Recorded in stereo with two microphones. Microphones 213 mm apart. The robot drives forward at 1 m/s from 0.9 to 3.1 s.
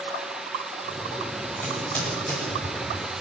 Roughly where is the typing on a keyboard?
Centre.